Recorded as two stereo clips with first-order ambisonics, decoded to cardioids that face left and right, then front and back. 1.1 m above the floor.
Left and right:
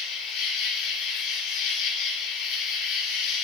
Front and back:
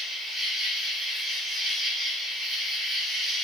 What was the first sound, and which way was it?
An insect, 80° left.